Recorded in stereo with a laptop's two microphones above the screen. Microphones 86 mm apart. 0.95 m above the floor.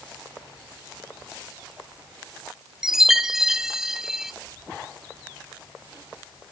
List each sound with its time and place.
2.8 s a chime: 5° right (ahead or behind), 0.6 m